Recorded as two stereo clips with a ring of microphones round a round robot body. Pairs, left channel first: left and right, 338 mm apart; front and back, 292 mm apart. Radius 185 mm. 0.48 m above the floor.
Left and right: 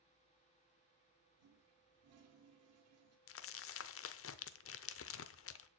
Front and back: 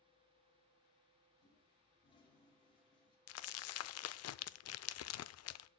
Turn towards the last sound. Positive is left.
turn(degrees=40)